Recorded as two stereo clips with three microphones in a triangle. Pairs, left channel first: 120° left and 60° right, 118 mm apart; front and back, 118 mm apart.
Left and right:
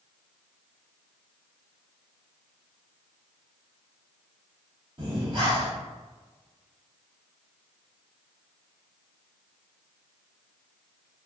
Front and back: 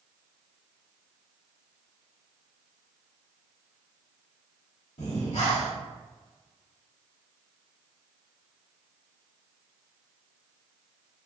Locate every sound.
5.0 s breathing: 10° right, 1.4 m